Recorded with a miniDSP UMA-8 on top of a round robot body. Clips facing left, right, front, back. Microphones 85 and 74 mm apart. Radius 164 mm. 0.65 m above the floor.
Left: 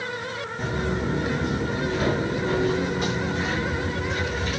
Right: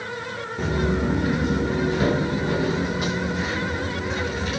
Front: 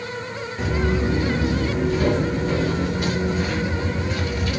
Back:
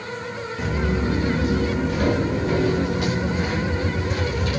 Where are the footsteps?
90° right, 1.0 m; by 4.6 s straight behind, 3.5 m.